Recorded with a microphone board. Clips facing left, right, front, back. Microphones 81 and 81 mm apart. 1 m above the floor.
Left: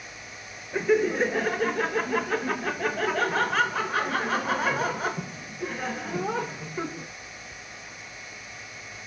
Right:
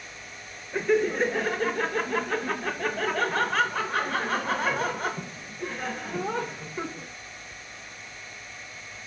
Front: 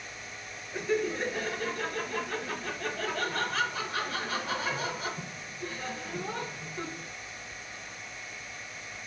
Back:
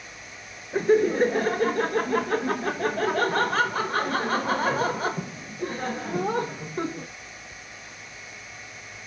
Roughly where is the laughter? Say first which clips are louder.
Left 1 dB, back 10 dB; behind.